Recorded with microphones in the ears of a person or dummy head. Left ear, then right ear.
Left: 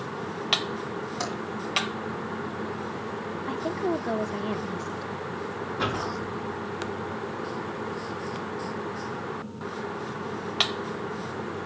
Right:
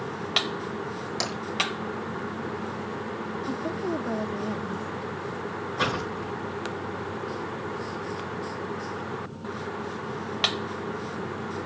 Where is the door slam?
80° right, 7.5 m.